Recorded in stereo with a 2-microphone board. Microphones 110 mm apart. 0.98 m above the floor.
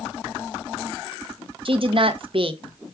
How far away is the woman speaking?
About 0.6 m.